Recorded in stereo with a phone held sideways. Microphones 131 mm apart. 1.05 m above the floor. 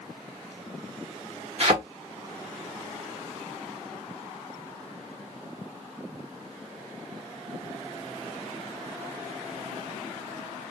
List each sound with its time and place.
1.6 s a thud: 50° right (ahead or behind), 1.0 m